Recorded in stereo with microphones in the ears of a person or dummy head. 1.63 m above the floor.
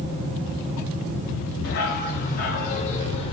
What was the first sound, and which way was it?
A dog barking, 60° left (ahead or behind).